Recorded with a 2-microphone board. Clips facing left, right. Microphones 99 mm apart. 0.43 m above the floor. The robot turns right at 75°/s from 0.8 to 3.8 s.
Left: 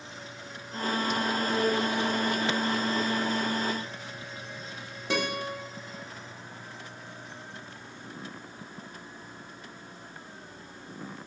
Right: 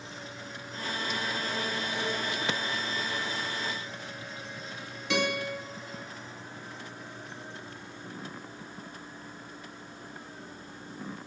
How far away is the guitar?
About 0.8 m.